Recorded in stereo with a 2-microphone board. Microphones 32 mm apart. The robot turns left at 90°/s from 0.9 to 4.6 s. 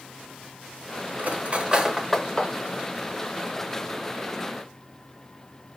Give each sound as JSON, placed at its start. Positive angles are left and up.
{"t": 1.2, "sound": "cutlery clinking", "side_deg": -65, "distance_m": 0.9}